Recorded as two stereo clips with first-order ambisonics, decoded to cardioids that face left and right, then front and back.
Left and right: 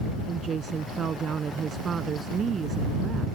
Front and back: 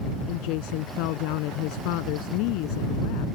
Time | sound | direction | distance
0.3 | a woman speaking | 20° right | ?